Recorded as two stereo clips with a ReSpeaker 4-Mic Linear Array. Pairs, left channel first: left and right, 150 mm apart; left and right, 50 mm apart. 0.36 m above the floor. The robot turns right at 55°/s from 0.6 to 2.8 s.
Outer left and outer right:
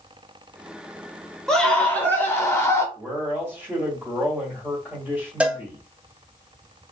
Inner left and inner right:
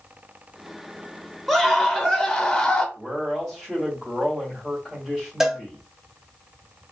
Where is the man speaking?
15° right (ahead or behind), 1.7 m.